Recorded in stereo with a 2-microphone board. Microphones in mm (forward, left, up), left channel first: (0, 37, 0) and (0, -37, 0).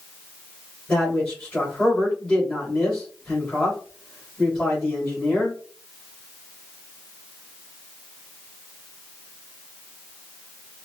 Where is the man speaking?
10° left (ahead or behind), 3 m.